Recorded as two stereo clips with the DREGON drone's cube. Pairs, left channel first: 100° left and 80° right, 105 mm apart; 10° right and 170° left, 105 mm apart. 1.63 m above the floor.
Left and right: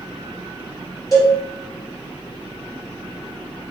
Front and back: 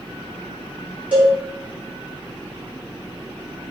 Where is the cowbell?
110° left, 1.4 m.